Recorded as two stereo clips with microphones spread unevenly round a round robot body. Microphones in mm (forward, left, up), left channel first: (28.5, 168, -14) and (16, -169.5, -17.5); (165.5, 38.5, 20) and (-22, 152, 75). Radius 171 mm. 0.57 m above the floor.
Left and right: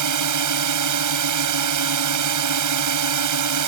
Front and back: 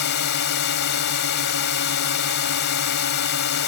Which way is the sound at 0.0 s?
60° right.